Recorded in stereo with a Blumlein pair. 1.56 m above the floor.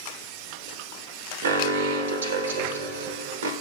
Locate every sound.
1.4 s an alarm: 65° right, 0.9 m